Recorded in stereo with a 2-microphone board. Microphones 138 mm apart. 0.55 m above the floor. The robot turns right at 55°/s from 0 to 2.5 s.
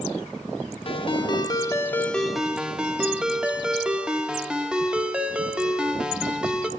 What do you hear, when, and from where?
0.8 s a ringtone: 100° left, 0.6 m; by 6.7 s 170° right, 0.6 m